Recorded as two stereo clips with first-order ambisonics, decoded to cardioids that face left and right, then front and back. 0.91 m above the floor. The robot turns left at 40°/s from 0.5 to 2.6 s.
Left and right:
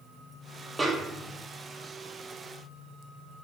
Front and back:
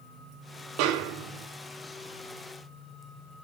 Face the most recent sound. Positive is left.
turn(degrees=120)